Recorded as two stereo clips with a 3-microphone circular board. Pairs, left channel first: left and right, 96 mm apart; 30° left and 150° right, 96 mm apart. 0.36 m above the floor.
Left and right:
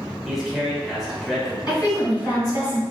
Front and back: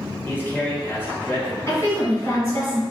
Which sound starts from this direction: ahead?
A man speaking, at 0.2 s.